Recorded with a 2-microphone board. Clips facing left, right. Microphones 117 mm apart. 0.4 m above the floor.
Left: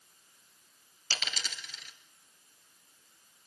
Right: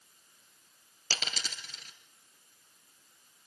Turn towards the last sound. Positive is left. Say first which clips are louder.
# right 1 dB
turn(degrees=-40)  # may be behind; listen again after turning